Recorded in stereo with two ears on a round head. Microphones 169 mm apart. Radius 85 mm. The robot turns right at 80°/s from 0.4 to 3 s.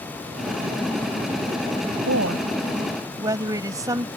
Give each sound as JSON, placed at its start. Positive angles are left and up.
{"t": 2.1, "sound": "a woman speaking", "azimuth_deg": -95}